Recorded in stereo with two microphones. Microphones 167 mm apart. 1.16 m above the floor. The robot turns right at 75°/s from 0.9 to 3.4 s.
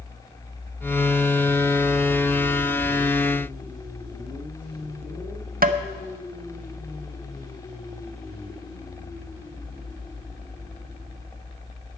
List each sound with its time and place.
5.6 s tapping: 60° right (ahead or behind), 0.6 m